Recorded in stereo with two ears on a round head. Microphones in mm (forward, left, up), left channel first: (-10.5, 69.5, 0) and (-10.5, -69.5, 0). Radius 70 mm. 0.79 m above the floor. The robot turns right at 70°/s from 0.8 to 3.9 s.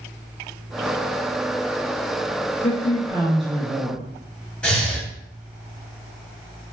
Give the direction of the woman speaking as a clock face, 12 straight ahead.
8 o'clock.